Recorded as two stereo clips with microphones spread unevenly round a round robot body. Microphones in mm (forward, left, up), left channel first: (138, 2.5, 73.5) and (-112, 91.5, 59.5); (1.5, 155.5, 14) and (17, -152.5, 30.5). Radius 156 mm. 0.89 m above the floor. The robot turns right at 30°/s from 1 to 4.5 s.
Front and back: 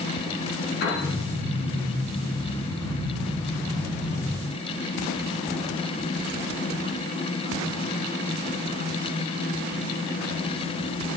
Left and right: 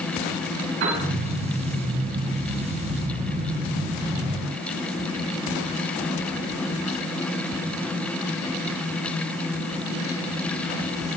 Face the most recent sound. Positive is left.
turn(degrees=25)